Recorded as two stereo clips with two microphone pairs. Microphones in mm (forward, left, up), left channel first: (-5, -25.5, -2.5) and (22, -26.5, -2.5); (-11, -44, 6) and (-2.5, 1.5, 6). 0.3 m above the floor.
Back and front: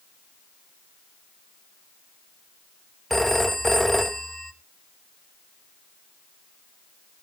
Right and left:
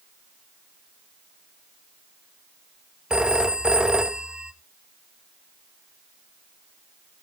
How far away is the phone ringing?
About 0.5 m.